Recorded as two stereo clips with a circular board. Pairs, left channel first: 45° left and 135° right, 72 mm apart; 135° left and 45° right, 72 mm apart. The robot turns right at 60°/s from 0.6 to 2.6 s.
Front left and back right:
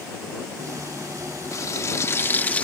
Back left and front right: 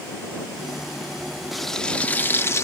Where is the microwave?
I don't hear a microwave.